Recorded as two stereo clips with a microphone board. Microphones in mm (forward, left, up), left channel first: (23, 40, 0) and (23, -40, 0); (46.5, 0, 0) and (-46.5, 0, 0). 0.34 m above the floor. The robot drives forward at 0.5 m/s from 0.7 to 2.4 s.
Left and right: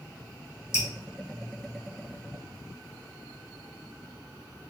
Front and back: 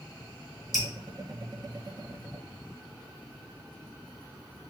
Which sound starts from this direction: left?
Dripping, at 0.7 s.